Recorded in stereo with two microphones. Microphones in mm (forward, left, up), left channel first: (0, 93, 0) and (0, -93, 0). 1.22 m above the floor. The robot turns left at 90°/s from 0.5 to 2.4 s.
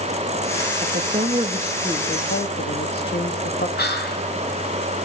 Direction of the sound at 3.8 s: 60° left (ahead or behind).